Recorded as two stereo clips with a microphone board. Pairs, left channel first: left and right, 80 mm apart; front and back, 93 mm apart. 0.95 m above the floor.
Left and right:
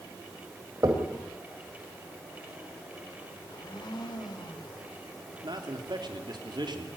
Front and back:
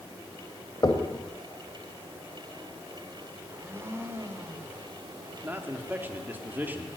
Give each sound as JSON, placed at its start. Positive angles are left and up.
{"t": 0.8, "sound": "knocking", "azimuth_deg": -45, "distance_m": 3.0}
{"t": 3.4, "sound": "a blender", "azimuth_deg": 115, "distance_m": 2.5}
{"t": 5.4, "sound": "a man speaking", "azimuth_deg": -110, "distance_m": 2.5}